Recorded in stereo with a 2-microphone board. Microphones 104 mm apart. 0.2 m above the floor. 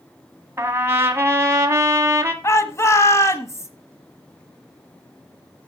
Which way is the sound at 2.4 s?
30° left (ahead or behind).